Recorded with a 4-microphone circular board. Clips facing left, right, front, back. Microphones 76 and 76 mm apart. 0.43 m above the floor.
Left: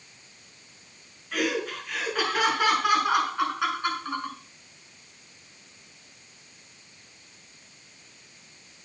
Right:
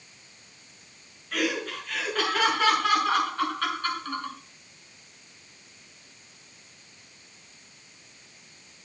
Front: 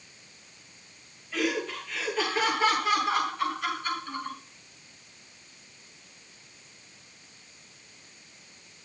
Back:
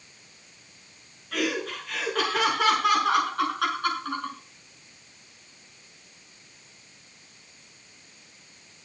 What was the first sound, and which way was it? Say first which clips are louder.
Laughter: left 1 dB, back 1 dB; 175° left.